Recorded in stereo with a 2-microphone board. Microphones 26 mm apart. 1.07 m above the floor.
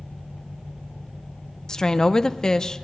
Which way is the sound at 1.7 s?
25° left (ahead or behind).